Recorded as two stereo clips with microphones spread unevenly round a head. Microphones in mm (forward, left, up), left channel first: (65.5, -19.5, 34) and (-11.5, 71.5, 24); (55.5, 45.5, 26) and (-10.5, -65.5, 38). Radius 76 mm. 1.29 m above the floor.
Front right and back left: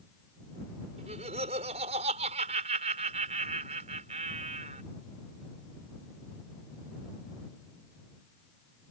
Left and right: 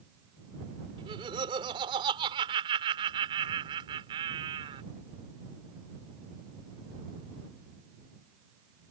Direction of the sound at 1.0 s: Straight behind.